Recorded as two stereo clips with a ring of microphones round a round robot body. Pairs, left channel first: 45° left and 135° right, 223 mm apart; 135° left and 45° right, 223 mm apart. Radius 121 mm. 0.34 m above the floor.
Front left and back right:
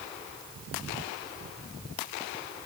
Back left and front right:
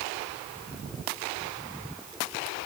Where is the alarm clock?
No alarm clock in this recording.